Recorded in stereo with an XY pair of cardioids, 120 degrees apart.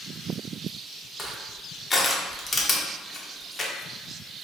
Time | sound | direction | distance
1.2 | crushing | 30° left | 0.5 m